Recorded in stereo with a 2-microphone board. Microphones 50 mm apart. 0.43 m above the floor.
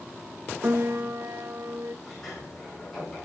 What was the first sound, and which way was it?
A piano, 50° right (ahead or behind).